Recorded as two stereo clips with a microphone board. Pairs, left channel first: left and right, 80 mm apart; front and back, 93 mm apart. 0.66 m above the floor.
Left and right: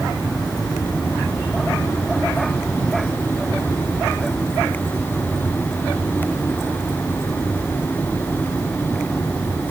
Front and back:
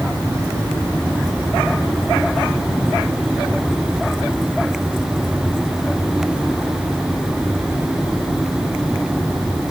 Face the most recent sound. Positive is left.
No sound to turn to.